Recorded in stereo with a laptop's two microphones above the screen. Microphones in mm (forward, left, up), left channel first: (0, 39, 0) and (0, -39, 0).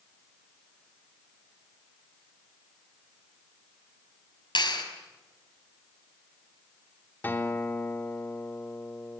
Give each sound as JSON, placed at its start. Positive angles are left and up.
{"t": 4.5, "sound": "a clap", "side_deg": 70, "distance_m": 5.5}
{"t": 7.2, "sound": "a guitar", "side_deg": 25, "distance_m": 3.5}